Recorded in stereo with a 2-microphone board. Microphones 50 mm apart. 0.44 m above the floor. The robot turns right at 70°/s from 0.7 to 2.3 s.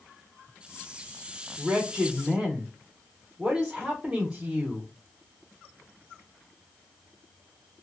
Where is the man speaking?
Centre (ahead or behind), 0.9 m; by 4.9 s 15° right (ahead or behind), 0.9 m.